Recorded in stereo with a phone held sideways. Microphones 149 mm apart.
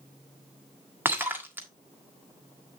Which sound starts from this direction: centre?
Breaking glass, at 1.1 s.